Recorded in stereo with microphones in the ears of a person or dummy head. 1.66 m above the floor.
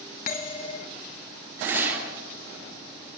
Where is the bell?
40° left (ahead or behind), 1.0 m.